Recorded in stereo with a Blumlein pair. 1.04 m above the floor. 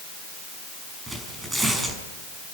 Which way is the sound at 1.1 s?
10° right.